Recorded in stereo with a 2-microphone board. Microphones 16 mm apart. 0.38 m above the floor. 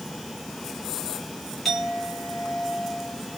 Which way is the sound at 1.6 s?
15° left (ahead or behind).